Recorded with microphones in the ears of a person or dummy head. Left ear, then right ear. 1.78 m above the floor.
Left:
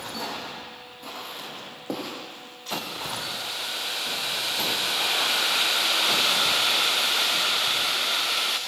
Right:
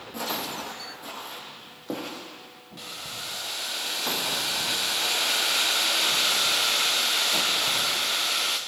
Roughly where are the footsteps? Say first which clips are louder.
Right 6 dB; centre.